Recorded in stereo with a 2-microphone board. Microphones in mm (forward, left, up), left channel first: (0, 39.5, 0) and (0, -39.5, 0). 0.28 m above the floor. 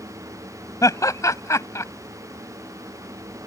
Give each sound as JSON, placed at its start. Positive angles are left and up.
{"t": 0.8, "sound": "laughter", "side_deg": 45}